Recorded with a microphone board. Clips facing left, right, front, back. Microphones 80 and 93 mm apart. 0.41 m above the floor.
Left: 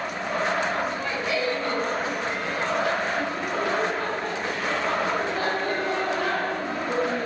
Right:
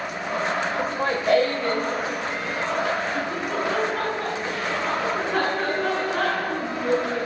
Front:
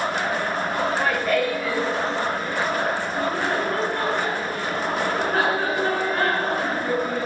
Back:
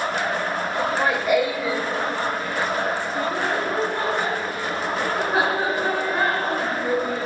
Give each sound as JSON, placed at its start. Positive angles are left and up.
{"t": 0.8, "sound": "laughter", "azimuth_deg": -110, "distance_m": 1.2}